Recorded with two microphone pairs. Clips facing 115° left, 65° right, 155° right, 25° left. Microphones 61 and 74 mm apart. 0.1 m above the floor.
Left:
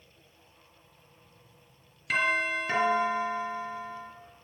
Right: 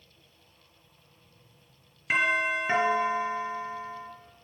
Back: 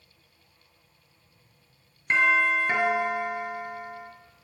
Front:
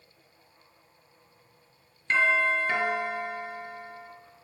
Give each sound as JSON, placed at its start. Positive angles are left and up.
{"t": 2.1, "sound": "a doorbell", "azimuth_deg": -95, "distance_m": 1.9}